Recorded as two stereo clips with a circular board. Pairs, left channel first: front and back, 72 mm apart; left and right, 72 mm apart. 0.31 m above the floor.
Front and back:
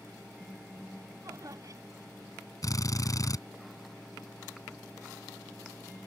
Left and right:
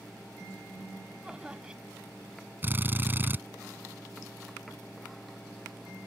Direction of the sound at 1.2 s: 165° right.